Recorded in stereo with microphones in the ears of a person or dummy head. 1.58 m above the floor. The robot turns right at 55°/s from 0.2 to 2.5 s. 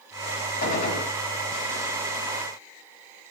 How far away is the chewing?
I don't hear chewing.